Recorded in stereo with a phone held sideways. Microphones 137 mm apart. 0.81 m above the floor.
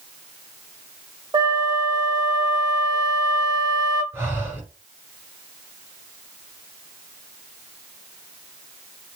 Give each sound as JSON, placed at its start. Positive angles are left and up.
{"t": 1.3, "sound": "a flute", "side_deg": -30, "distance_m": 1.0}
{"t": 4.1, "sound": "breathing", "side_deg": -15, "distance_m": 1.5}